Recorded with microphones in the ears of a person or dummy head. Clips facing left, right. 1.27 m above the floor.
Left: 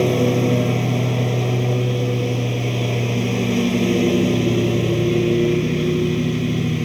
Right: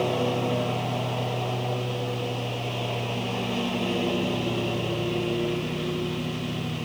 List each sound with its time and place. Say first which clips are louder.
0.0 s a lawn mower: left 8 dB; 40° left (ahead or behind)